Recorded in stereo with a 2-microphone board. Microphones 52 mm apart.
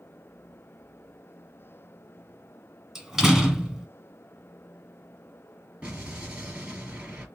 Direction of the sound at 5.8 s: 25° right (ahead or behind).